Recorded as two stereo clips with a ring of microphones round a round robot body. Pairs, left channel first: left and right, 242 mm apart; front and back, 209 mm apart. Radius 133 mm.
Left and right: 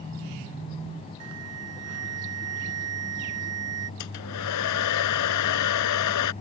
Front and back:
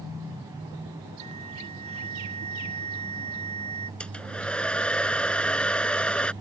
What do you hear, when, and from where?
1.2 s an alarm: 115° right
4.0 s a hair dryer: 85° left